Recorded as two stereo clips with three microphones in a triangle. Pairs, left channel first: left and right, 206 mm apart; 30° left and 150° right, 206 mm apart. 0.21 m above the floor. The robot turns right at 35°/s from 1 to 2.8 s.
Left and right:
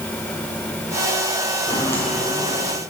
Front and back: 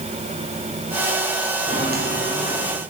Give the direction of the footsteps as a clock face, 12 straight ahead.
7 o'clock.